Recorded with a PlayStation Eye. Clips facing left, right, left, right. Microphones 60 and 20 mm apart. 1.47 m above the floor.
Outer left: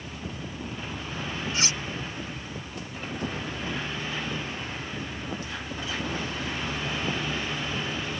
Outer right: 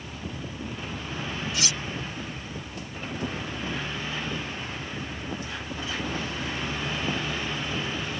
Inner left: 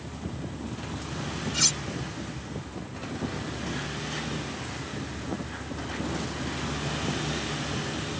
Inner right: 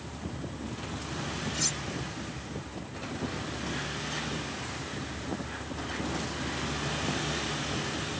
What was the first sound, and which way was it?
Cutlery clinking, 35° left (ahead or behind).